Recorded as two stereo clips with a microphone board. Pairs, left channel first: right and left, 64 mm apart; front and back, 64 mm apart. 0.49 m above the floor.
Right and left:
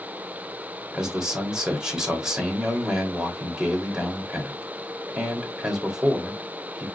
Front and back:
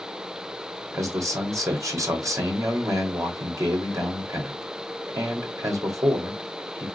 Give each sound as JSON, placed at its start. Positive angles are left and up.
{"t": 0.9, "sound": "a man speaking", "azimuth_deg": 170, "distance_m": 1.9}